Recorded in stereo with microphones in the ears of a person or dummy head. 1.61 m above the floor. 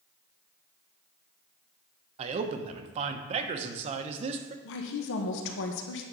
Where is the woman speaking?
65° left (ahead or behind), 1.2 m.